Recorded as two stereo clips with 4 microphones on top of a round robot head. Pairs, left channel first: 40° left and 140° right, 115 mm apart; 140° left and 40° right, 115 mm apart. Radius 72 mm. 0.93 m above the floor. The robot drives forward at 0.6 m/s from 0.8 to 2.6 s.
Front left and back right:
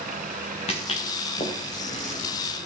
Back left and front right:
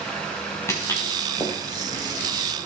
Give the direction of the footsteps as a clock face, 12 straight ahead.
10 o'clock.